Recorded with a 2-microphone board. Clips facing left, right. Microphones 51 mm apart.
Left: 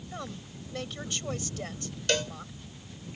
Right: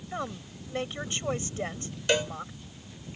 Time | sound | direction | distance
0.1 | a woman speaking | 25° right (ahead or behind) | ?
2.1 | a cowbell | 20° right (ahead or behind) | ?